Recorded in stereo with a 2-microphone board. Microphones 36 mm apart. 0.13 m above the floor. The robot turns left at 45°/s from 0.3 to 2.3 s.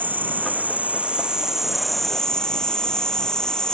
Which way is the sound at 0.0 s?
110° right.